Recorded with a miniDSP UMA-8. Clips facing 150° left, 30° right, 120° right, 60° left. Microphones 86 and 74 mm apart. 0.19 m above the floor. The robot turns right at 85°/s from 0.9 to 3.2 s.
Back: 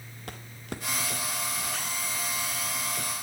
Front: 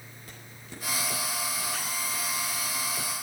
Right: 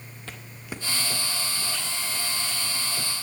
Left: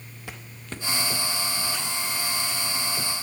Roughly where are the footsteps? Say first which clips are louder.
Back 9 dB, even; behind left.